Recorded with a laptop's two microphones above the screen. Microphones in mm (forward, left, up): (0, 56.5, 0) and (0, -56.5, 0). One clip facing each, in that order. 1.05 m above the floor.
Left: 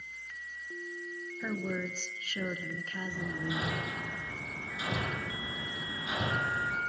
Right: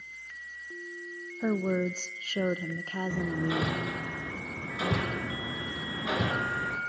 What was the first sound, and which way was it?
A woman speaking, 40° right (ahead or behind).